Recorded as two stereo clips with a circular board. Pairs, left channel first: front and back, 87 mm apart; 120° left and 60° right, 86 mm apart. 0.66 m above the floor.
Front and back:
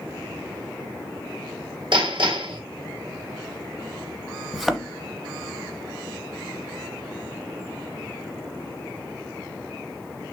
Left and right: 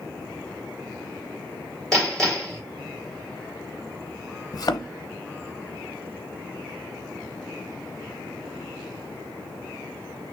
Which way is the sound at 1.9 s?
155° right.